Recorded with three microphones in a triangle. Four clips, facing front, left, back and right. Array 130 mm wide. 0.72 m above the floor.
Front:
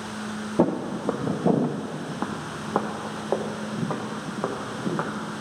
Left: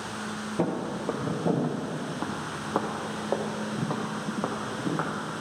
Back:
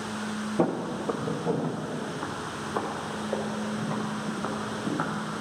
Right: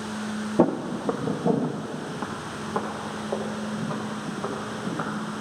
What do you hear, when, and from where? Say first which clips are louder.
0.6 s footsteps: right 7 dB, front 4 dB; 55° right, 0.8 m; by 5.1 s 30° left, 2.5 m